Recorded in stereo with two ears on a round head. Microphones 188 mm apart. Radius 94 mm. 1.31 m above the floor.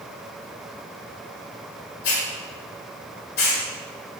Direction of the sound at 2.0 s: 50° left (ahead or behind).